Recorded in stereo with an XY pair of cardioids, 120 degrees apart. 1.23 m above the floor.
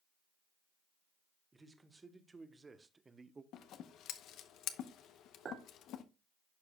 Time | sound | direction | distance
1.5 | a man speaking | 20° right | 1.5 m
3.5 | scissors | 70° left | 0.8 m
5.5 | a clink | 45° right | 2.5 m